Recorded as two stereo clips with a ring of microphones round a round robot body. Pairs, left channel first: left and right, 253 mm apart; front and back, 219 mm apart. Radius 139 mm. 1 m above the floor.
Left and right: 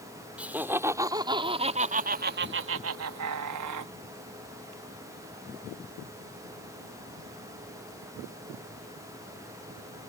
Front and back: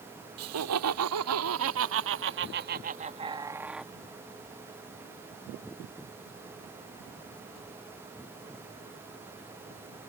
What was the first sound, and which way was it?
Laughter, 175° right.